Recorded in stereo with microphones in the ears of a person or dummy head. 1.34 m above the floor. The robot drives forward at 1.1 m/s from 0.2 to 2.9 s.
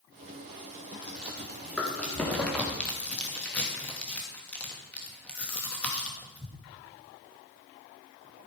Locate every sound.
1.0 s chewing: 5° left (ahead or behind), 4.5 m